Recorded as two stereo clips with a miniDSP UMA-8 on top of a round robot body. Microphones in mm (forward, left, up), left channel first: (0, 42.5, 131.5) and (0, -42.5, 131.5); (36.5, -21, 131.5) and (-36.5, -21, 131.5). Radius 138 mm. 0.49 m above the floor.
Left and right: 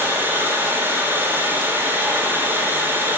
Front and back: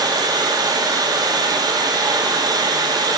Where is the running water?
155° right, 1.7 m.